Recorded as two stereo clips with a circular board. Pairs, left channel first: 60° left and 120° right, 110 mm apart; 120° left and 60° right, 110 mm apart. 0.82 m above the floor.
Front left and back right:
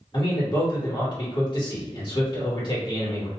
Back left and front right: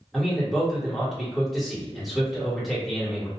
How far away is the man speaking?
About 1.4 m.